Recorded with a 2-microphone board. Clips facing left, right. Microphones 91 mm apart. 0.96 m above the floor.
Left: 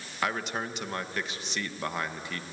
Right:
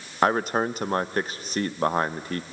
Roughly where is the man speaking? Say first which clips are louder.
Right 9 dB; right.